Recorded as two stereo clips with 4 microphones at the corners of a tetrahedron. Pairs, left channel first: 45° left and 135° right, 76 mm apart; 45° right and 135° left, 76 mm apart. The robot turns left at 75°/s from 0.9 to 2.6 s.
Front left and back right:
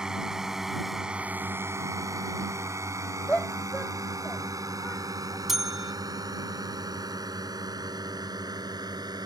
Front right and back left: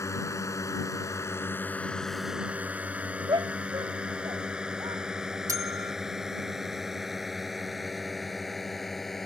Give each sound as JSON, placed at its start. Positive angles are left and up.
{"t": 0.0, "sound": "a drone", "azimuth_deg": -60}
{"t": 3.3, "sound": "a shout", "azimuth_deg": 115}
{"t": 5.5, "sound": "a bell", "azimuth_deg": 140}